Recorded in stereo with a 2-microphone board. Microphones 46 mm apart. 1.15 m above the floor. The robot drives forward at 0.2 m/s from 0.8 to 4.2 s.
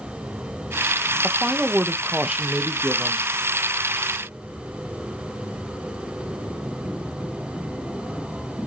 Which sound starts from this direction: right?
A woman speaking, at 1.2 s.